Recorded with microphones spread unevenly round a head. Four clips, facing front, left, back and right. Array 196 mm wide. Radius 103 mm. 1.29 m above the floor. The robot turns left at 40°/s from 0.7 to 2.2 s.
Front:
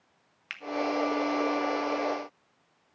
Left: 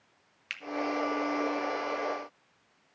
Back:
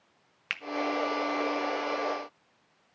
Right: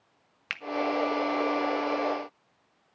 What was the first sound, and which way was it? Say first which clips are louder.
A finger snap: right 6 dB, back 5 dB; 140° right.